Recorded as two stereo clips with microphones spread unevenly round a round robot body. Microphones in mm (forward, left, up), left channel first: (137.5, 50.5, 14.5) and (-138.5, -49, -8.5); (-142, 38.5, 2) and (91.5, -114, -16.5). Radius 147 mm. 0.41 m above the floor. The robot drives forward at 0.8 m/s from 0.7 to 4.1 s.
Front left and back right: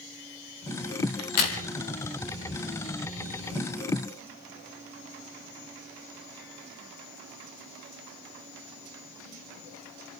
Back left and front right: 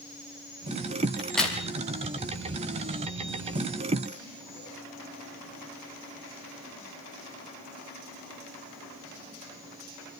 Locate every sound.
1.2 s a crack: 55° left, 3.5 m; by 1.6 s 60° left, 3.5 m